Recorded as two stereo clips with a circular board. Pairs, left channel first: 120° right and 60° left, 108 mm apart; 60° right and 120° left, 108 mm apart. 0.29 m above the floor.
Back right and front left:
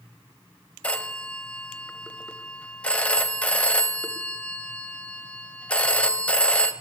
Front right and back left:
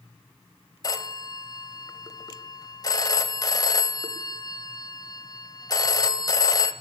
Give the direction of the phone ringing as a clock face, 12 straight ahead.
2 o'clock.